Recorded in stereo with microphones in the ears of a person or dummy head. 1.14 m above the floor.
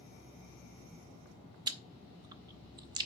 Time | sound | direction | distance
1.7 | chewing | 25° right (ahead or behind) | 0.7 m